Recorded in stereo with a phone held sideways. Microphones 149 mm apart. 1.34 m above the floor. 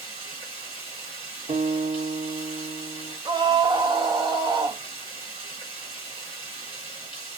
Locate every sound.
0.0 s running water: 35° left (ahead or behind), 1.2 m
1.5 s a guitar: 55° right (ahead or behind), 0.8 m
3.2 s a scream: 30° right (ahead or behind), 0.6 m